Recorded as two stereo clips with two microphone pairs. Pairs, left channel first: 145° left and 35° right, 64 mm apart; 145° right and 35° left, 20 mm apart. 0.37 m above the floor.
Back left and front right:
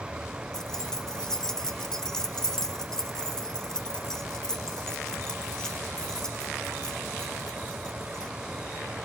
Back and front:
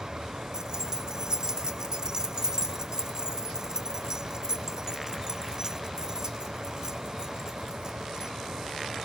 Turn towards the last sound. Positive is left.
turn(degrees=60)